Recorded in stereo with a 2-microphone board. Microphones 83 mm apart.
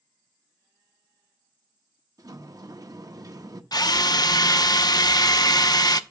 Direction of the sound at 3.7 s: 50° left (ahead or behind).